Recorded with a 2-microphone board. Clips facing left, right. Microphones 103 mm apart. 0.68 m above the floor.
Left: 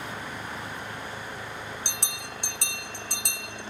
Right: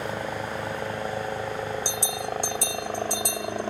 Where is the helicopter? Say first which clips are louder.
Right 6 dB; 65° right (ahead or behind); by 3.7 s 60° right (ahead or behind).